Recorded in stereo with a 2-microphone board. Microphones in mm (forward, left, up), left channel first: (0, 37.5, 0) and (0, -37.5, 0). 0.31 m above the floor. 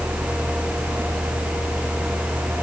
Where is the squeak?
I don't hear a squeak.